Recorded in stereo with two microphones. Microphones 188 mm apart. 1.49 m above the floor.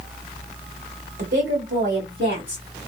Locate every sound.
1.2 s a woman speaking: 60° right (ahead or behind), 1.4 m; by 2.6 s 85° right, 2 m